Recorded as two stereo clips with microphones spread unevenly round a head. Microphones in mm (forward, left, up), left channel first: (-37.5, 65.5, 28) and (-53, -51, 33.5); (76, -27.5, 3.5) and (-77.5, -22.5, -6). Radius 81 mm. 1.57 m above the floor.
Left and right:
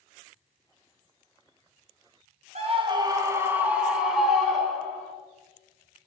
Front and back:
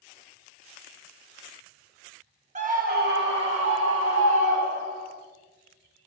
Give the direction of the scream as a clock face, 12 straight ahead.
4 o'clock.